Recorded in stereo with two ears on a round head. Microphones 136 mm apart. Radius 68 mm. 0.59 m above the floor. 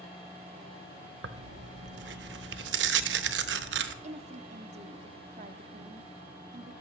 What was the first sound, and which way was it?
Tearing paper, 85° right.